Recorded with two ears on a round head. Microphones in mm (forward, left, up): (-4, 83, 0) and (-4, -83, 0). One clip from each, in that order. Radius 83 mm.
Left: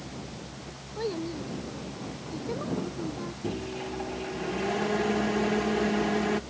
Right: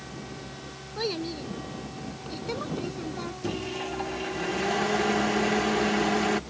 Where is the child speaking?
70° right (ahead or behind).